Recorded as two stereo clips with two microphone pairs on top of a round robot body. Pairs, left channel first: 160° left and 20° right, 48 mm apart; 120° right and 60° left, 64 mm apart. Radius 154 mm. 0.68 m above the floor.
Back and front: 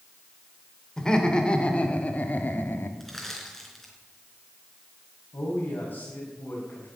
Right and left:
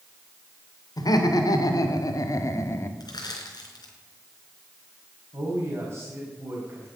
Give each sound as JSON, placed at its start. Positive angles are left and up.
{"t": 1.0, "sound": "laughter", "azimuth_deg": -125, "distance_m": 3.0}
{"t": 3.0, "sound": "crushing", "azimuth_deg": -115, "distance_m": 3.5}
{"t": 5.3, "sound": "a man speaking", "azimuth_deg": 120, "distance_m": 5.0}